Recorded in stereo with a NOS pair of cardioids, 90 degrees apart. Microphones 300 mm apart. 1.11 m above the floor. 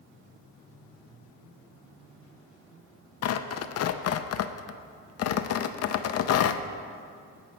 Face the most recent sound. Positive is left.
turn(degrees=60)